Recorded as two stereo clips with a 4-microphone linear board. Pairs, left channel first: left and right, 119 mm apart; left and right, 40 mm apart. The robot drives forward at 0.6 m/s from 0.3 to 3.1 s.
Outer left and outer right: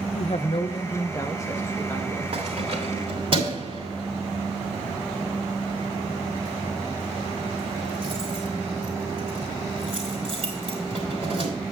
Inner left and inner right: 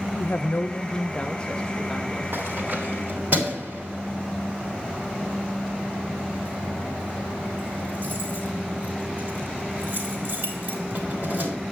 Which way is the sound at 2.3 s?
55° right (ahead or behind).